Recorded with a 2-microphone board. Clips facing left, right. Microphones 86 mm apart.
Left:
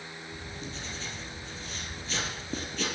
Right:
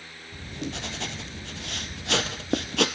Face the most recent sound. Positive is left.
turn(degrees=-75)  # may be behind; listen again after turning